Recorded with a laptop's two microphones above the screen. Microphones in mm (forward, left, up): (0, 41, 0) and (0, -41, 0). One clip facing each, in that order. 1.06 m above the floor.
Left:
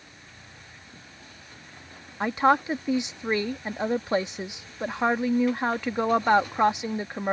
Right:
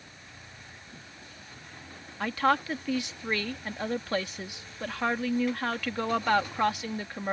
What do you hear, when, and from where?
2.2 s a woman speaking: 20° left (ahead or behind)